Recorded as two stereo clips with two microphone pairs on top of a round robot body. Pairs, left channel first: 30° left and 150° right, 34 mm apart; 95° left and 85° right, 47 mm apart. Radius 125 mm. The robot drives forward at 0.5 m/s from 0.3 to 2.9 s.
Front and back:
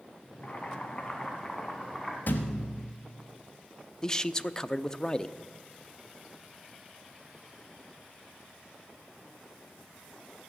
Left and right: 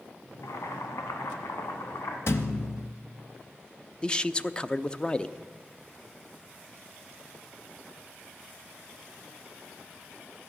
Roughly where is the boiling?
Left.